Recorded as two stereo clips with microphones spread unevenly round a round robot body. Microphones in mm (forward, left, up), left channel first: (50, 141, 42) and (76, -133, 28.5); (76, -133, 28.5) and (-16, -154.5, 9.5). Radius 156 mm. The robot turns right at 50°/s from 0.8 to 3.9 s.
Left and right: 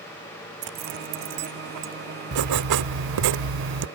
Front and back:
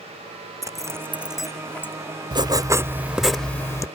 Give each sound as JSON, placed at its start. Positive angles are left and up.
{"t": 0.6, "sound": "a zipper", "azimuth_deg": -110}
{"t": 2.3, "sound": "writing", "azimuth_deg": -130}